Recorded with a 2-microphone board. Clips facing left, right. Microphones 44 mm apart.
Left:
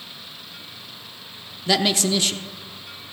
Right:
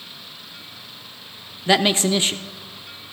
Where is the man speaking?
25° right (ahead or behind), 0.7 m.